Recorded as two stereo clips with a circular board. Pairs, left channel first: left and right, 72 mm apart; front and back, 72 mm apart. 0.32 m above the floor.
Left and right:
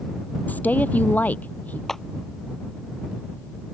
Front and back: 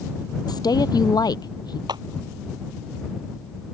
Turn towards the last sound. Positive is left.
turn(degrees=175)